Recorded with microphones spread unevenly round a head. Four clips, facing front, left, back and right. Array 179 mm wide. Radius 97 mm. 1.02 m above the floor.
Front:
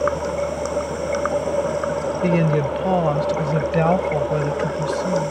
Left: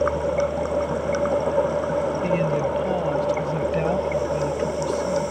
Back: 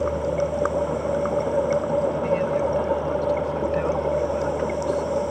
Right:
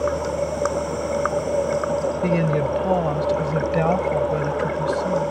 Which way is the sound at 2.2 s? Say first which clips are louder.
Right 1 dB, front 3 dB; 20° right.